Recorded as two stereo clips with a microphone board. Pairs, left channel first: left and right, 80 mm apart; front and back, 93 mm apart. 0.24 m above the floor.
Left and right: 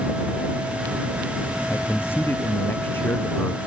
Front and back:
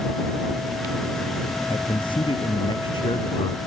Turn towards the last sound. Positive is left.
turn(degrees=30)